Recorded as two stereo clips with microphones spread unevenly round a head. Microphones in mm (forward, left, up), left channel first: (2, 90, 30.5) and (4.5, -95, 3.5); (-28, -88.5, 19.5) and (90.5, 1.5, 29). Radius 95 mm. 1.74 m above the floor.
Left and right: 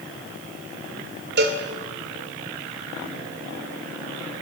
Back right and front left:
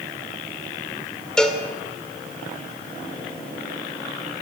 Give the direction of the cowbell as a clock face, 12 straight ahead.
2 o'clock.